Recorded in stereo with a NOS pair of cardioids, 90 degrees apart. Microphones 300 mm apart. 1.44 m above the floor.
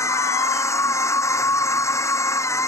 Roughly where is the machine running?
Ahead.